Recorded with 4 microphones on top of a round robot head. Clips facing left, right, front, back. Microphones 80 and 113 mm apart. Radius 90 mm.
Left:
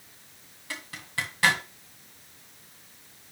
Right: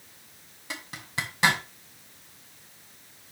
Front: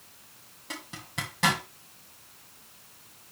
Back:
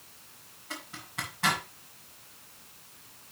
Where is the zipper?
25° right, 1.9 m.